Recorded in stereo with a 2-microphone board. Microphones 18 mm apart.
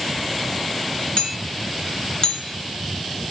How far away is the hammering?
About 3.5 m.